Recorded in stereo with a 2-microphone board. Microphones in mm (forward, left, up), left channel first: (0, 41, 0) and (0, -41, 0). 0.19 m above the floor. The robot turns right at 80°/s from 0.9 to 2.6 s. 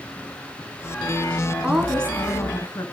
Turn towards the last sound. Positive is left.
turn(degrees=60)